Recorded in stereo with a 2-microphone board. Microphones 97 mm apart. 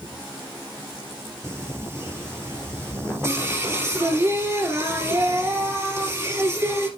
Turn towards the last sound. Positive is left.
turn(degrees=-30)  # may be behind; listen again after turning